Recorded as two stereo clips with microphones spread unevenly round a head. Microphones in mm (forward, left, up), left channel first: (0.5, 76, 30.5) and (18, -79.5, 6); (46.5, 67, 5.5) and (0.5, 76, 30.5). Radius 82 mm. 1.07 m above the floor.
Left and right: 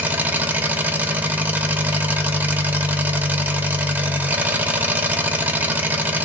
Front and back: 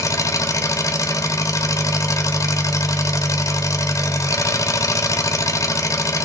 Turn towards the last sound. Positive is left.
turn(degrees=0)